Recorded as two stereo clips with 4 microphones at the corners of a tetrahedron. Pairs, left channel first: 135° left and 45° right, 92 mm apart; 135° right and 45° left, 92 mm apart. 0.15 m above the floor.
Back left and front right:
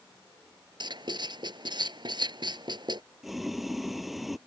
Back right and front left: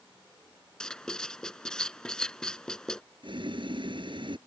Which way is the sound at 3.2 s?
45° left.